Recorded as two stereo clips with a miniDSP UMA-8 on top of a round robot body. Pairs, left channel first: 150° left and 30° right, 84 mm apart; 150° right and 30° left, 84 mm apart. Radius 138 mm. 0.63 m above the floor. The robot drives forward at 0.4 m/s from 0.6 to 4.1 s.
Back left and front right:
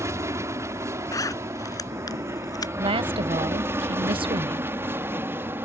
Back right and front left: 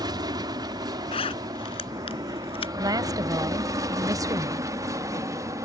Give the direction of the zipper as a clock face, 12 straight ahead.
5 o'clock.